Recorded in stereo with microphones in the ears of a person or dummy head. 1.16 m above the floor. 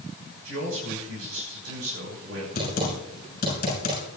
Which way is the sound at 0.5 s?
85° right.